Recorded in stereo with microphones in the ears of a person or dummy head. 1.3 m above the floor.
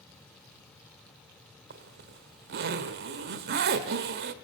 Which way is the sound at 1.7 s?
50° right (ahead or behind).